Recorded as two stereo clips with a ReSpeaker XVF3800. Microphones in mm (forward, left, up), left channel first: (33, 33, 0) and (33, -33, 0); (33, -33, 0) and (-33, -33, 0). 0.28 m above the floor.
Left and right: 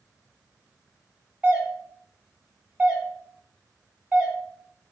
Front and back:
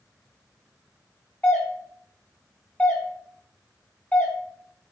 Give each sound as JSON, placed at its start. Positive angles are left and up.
{"t": 1.4, "sound": "a doorbell", "azimuth_deg": -35, "distance_m": 1.7}